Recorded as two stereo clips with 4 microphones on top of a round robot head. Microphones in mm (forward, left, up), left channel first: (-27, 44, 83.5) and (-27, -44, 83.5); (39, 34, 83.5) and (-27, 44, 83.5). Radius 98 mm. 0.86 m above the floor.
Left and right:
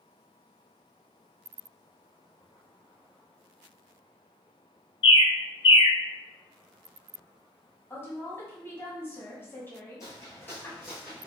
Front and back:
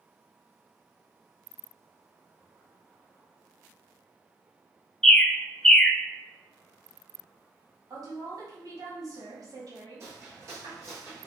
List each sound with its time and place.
5.0 s a bird: 75° left, 0.5 m
7.9 s a woman speaking: 155° left, 1.6 m
10.0 s footsteps: 135° left, 1.1 m; by 11.3 s 140° right, 0.8 m